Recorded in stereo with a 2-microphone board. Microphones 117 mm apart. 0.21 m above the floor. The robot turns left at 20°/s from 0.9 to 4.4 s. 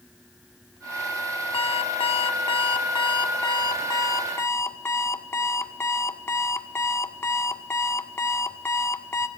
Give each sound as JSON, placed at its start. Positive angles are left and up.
{"t": 1.5, "sound": "an alarm clock", "azimuth_deg": 90, "distance_m": 0.7}